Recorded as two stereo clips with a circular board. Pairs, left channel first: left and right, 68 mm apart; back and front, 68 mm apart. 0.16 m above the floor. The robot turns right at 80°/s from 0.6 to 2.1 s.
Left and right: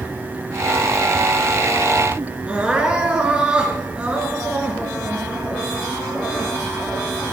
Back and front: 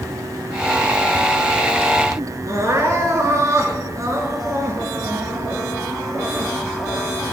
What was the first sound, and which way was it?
Crying, 20° right.